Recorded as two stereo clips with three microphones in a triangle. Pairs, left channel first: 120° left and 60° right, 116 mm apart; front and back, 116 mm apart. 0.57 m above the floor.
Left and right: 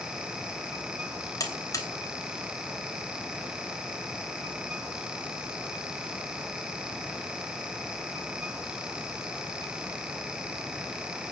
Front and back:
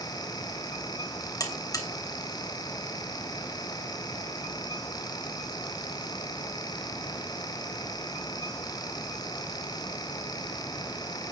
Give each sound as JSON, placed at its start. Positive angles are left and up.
{"t": 1.4, "sound": "a buzzer", "azimuth_deg": 60, "distance_m": 3.0}